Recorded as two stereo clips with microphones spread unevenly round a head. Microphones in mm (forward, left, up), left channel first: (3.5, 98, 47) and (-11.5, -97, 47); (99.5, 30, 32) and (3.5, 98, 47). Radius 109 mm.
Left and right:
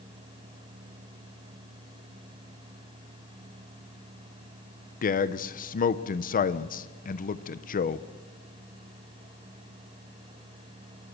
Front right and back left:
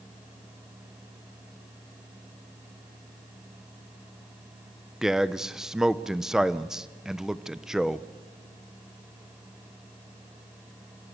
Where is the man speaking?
55° left, 0.8 m.